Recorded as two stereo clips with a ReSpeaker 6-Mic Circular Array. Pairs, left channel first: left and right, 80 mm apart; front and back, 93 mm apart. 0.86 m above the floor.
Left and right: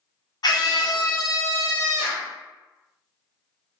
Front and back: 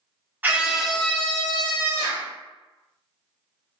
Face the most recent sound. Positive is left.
turn(degrees=5)